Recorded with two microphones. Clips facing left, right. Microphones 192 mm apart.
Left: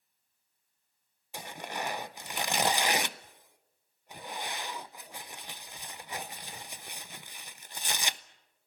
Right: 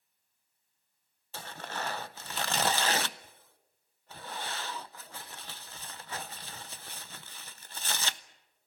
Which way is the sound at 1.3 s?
15° left (ahead or behind).